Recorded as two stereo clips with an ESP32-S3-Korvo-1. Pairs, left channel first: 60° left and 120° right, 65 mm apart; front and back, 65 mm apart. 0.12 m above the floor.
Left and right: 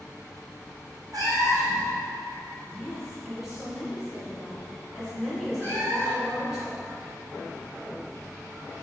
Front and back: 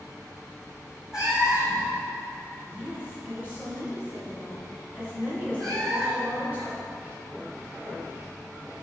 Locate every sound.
1.1 s a cat meowing: 100° right, 1.1 m
2.7 s a woman speaking: 170° left, 1.8 m
5.6 s a cat meowing: 170° right, 1.9 m